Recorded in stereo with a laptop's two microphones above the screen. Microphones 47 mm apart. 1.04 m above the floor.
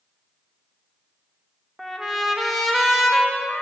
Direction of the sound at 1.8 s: Centre (ahead or behind).